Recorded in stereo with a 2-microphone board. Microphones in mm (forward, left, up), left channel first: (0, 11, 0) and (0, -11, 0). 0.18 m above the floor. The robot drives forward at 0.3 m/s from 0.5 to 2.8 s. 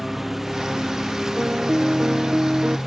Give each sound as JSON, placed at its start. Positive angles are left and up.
{"t": 0.0, "sound": "a lawn mower", "side_deg": -15}
{"t": 1.4, "sound": "a piano", "side_deg": -80}